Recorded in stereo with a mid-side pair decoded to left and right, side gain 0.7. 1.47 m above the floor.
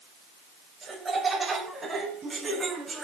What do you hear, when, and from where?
0.8 s laughter: 25° right, 8 m; by 3.0 s 20° right, 9 m